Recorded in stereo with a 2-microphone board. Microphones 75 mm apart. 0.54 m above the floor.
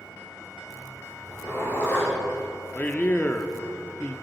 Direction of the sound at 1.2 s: 30° left (ahead or behind).